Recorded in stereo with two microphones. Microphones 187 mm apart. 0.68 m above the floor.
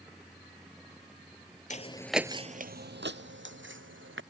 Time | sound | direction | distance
1.7 | footsteps | 40° left (ahead or behind) | ?